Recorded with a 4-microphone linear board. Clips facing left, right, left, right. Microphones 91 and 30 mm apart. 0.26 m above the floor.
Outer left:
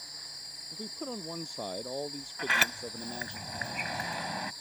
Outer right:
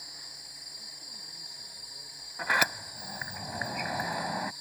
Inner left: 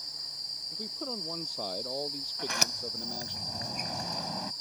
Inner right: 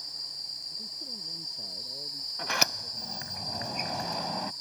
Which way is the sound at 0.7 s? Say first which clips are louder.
Outer left 20 dB, inner left 2 dB; 80° left.